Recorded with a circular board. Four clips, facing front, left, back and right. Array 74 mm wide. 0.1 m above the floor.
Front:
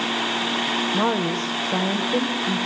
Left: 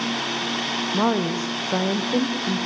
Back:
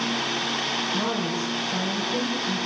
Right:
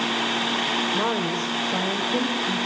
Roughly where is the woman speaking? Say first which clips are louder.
Left 3 dB, front 5 dB; ahead left.